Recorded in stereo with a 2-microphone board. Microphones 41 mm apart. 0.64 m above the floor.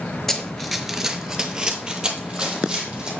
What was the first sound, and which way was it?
Running footsteps, 5° left (ahead or behind).